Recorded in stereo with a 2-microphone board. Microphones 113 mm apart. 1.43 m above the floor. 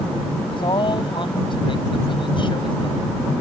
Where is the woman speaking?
50° left (ahead or behind).